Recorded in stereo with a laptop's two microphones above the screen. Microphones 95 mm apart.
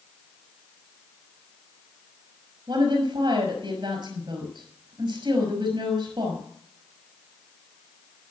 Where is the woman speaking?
50° right (ahead or behind), 5.5 m.